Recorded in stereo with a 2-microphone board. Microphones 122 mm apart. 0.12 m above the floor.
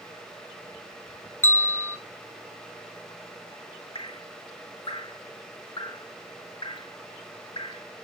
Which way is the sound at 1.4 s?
15° left (ahead or behind).